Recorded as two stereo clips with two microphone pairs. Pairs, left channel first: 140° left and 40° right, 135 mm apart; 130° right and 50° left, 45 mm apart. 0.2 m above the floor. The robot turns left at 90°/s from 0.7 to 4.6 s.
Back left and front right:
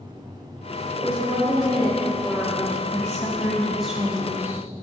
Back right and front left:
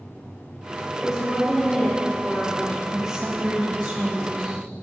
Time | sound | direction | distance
0.9 | a woman speaking | 10° left | 1.6 m
2.9 | a woman speaking | 115° left | 1.0 m